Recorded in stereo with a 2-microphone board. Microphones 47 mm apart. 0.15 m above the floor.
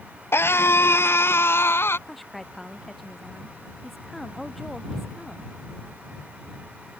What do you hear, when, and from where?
0.3 s a scream: 60° left (ahead or behind)
2.1 s a woman speaking: centre (ahead or behind)